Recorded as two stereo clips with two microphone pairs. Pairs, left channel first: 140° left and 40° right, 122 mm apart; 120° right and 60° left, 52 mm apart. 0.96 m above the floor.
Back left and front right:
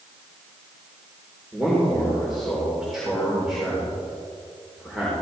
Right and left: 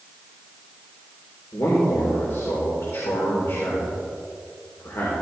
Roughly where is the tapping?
No tapping in this recording.